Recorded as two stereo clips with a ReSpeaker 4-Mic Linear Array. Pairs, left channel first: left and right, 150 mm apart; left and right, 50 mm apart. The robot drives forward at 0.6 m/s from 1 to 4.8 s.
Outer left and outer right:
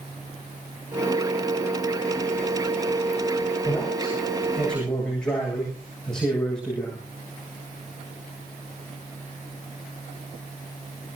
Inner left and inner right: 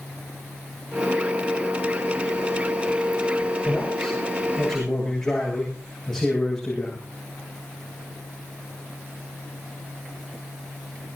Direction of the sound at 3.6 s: 5° left (ahead or behind).